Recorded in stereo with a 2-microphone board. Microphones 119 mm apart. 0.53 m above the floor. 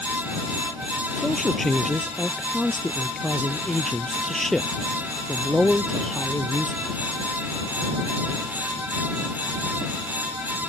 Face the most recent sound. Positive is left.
turn(degrees=0)  # may be behind; listen again after turning